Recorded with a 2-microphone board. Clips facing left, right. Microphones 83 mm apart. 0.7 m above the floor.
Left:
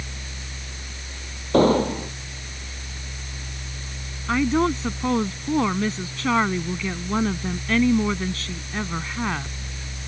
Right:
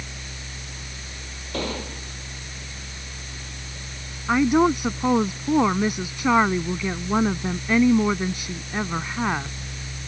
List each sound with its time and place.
1.5 s an explosion: 40° left (ahead or behind)
4.3 s a woman speaking: 15° right (ahead or behind)